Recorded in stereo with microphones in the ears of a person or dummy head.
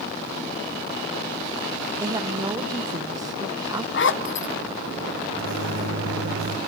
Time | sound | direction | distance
2.0 | a woman speaking | 20° right (ahead or behind) | 0.8 m
3.9 | a zipper | 60° left (ahead or behind) | 0.9 m
5.3 | a microwave | 80° right | 3.5 m